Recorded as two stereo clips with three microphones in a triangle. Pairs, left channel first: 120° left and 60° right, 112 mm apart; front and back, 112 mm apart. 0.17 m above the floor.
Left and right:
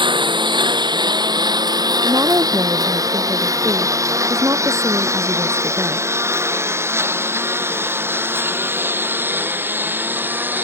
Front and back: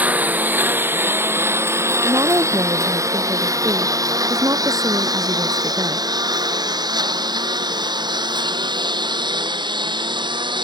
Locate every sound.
0.0 s a lawn mower: 105° right; by 10.6 s 135° right
2.0 s a woman speaking: 120° right